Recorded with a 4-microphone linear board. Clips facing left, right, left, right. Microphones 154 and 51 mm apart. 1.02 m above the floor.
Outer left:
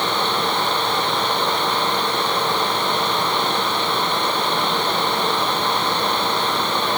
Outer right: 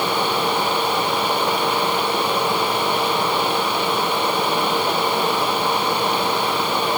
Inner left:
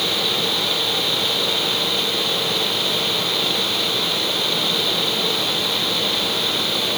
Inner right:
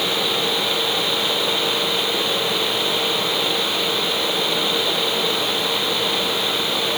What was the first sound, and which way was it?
Only background noise.